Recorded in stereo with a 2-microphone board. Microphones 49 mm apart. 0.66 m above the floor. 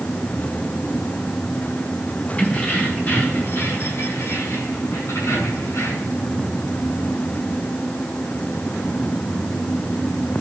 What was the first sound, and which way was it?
Keys jangling, 30° left (ahead or behind).